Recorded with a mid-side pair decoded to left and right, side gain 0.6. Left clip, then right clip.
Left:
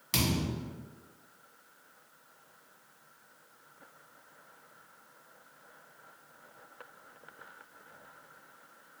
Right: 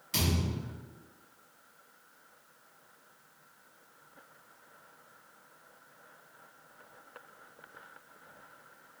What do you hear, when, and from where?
0.1 s a thud: 50° left, 1.5 m